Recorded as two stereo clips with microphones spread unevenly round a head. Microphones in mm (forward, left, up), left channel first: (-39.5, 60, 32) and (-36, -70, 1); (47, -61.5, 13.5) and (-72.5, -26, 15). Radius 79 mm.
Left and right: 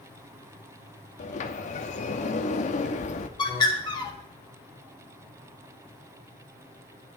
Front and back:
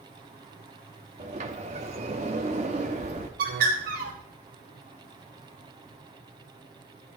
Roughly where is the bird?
Behind left.